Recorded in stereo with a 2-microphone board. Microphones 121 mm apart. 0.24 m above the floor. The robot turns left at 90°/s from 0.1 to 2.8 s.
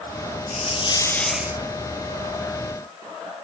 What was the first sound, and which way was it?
A hiss, 75° left.